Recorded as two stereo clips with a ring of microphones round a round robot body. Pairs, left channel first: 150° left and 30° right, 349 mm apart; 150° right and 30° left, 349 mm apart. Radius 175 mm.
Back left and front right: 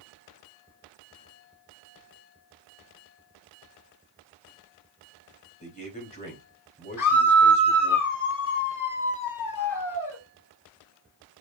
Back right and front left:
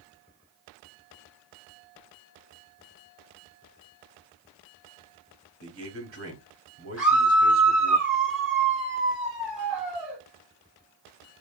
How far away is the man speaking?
About 2 m.